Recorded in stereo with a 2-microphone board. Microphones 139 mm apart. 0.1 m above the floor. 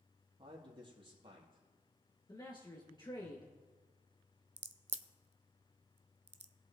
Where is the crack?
50° right (ahead or behind), 0.6 m.